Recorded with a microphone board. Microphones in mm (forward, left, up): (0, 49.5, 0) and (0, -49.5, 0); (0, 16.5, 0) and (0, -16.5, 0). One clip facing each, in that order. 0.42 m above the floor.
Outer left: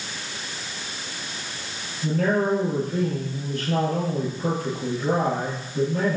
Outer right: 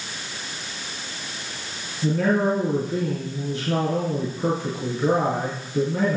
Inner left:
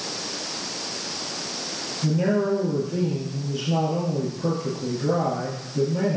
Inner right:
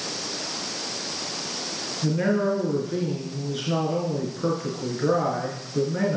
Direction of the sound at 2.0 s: 80° right.